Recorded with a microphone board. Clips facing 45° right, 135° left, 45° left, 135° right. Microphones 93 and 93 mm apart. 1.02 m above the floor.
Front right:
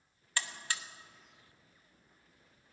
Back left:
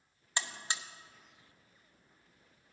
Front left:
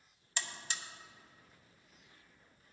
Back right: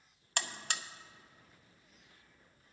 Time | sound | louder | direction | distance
0.4 | a buzzer | even, back right 3 dB | 155° right | 0.5 m